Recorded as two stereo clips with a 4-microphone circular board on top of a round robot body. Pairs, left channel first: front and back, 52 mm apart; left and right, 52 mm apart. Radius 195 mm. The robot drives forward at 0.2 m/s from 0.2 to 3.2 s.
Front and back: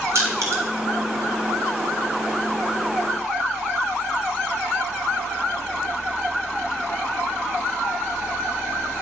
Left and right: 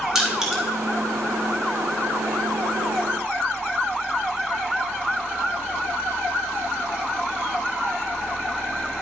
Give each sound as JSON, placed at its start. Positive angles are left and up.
{"t": 0.1, "sound": "crushing", "azimuth_deg": -170, "distance_m": 2.5}